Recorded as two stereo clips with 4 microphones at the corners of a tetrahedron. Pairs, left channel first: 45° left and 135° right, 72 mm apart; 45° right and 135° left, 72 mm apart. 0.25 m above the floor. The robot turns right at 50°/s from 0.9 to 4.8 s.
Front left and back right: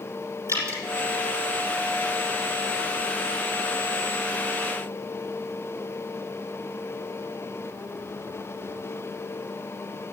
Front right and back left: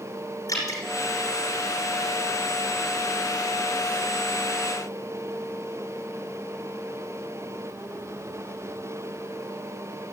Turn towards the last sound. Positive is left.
turn(degrees=105)